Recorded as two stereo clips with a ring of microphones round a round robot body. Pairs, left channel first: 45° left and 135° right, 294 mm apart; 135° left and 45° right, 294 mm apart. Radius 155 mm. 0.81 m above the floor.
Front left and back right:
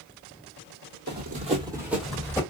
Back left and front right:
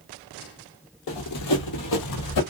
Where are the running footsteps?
175° left, 1.3 m; by 2.4 s 125° left, 1.5 m.